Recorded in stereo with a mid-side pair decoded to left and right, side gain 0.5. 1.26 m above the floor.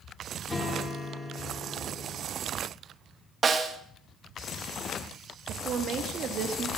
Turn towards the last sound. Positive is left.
turn(degrees=-55)